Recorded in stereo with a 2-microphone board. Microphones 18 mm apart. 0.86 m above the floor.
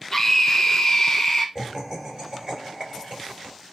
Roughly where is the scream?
Centre.